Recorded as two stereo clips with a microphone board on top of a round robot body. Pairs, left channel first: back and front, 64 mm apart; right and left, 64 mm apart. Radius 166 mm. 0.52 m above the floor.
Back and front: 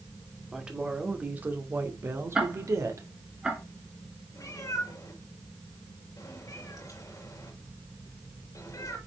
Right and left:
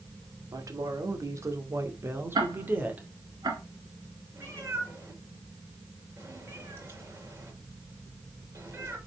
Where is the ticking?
80° left, 1.4 m.